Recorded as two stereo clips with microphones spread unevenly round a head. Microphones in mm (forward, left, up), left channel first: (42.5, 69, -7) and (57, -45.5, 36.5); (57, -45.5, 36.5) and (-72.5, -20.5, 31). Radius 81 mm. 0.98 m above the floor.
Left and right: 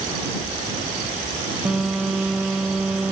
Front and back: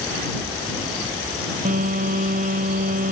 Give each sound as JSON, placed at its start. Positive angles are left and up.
{"t": 1.6, "sound": "a phone buzzing", "azimuth_deg": -165}